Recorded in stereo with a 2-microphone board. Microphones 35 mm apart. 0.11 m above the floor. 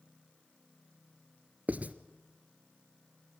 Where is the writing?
45° right (ahead or behind), 0.9 m.